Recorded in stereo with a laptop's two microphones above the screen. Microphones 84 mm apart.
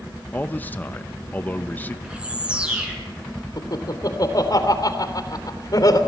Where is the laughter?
50° left (ahead or behind), 3 m.